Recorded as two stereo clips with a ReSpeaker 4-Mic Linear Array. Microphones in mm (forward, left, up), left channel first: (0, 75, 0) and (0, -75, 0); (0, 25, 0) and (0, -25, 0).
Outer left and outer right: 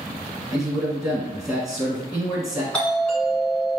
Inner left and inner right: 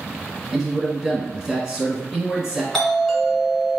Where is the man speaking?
Centre (ahead or behind), 1.2 m.